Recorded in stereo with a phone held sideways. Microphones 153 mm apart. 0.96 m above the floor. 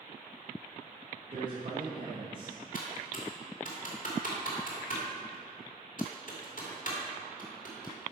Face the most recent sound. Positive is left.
turn(degrees=60)  # may be behind; listen again after turning